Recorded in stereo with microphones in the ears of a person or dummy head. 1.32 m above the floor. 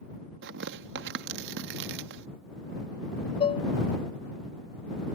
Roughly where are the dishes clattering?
Left.